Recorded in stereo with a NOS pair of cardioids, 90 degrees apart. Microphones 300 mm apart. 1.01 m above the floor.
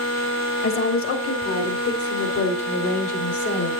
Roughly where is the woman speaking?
Ahead left.